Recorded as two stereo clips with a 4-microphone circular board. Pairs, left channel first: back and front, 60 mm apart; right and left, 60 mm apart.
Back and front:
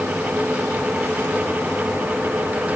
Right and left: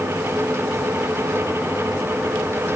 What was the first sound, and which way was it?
Only background noise.